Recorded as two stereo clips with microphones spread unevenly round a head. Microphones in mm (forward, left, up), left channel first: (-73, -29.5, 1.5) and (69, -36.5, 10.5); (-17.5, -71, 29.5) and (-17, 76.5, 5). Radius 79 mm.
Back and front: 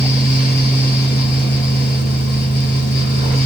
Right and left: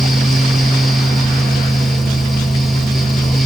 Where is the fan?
175° left, 4 m.